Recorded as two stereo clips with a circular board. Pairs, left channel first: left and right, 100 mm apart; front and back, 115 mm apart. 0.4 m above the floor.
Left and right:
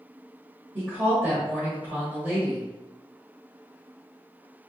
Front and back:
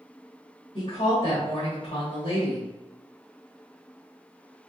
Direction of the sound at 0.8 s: 25° right.